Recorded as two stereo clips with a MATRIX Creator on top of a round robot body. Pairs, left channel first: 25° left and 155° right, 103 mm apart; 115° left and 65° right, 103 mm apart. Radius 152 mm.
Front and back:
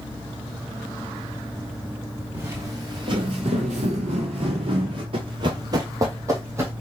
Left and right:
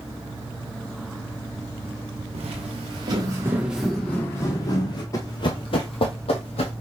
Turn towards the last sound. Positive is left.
turn(degrees=140)